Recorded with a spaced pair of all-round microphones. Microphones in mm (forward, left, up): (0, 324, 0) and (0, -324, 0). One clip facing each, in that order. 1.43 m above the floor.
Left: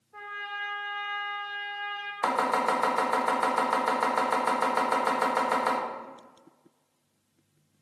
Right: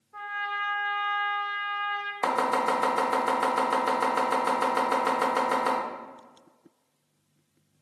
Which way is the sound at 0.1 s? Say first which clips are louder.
Right 4 dB; 35° right (ahead or behind).